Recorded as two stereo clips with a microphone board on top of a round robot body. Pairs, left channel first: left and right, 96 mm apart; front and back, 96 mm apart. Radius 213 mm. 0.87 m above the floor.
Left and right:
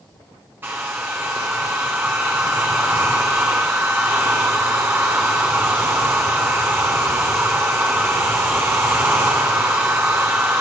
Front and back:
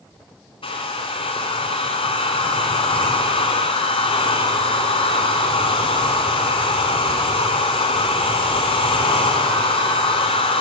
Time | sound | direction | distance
0.6 | a hair dryer | 25° right | 0.6 m